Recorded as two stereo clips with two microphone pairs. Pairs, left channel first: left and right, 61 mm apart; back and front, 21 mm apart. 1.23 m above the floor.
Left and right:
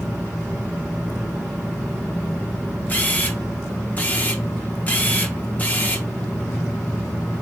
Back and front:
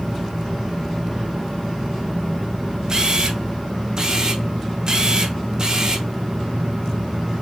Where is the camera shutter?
40° left, 0.7 m.